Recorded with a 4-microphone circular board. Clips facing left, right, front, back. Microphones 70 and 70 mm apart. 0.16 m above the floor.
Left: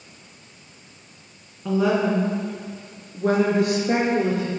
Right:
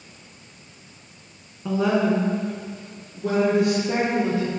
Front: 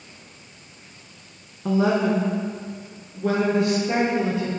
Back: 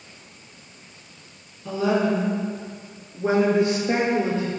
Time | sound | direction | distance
1.6 | a woman speaking | 5° right | 1.5 m